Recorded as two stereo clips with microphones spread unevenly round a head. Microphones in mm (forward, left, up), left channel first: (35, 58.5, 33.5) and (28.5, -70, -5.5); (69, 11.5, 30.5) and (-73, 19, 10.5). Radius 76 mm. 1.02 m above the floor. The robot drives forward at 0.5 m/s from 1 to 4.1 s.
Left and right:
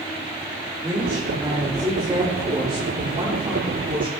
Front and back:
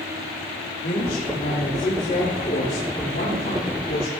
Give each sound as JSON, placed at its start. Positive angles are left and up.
{"t": 0.8, "sound": "a woman speaking", "azimuth_deg": -25, "distance_m": 3.5}